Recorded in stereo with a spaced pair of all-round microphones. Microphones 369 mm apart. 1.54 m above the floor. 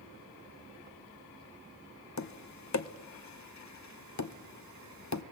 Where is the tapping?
50° left (ahead or behind), 0.8 m.